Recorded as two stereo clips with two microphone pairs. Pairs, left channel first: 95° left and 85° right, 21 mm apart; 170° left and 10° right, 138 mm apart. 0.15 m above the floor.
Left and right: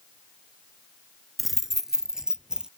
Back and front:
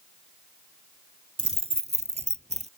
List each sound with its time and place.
1.4 s keys jangling: 10° right; by 2.7 s 40° right